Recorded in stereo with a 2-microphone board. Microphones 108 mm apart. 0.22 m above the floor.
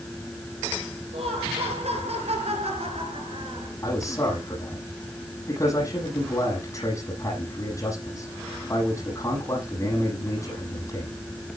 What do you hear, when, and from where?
1.1 s laughter: 70° right (ahead or behind), 4.5 m; by 3.7 s 50° right (ahead or behind), 2.5 m
3.8 s a man speaking: 30° left (ahead or behind), 10 m